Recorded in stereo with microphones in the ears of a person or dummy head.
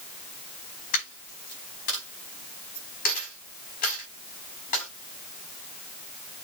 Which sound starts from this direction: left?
A dropped coin, at 0.9 s.